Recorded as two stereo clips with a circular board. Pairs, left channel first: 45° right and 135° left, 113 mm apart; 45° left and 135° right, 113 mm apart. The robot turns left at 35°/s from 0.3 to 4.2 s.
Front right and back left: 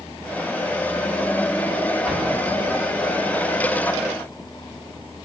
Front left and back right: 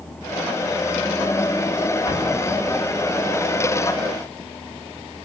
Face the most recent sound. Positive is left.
turn(degrees=-15)